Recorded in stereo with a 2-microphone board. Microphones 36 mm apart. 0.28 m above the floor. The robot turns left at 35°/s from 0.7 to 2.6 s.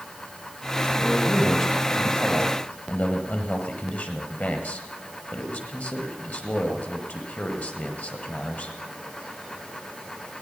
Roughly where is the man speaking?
Behind.